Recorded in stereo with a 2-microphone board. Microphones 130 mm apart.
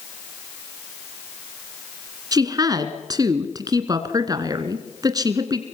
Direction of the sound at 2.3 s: 30° right (ahead or behind).